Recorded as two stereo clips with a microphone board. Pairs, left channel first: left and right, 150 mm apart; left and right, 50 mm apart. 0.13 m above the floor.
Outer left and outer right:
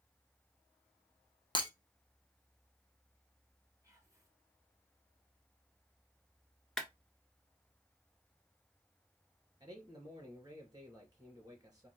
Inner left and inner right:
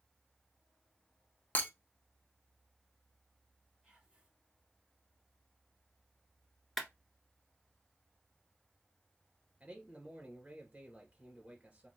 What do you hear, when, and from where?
1.6 s breaking glass: 35° left (ahead or behind), 1.0 m
3.8 s whispering: 20° right (ahead or behind), 1.9 m
6.8 s a clap: 5° left (ahead or behind), 1.4 m
9.6 s a man speaking: 25° right (ahead or behind), 2 m